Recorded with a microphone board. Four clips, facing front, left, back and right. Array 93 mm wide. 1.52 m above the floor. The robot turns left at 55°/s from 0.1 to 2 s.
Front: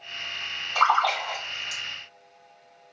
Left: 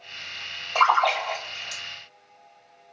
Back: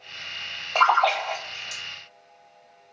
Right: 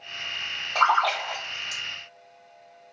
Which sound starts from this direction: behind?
A splash, at 0.8 s.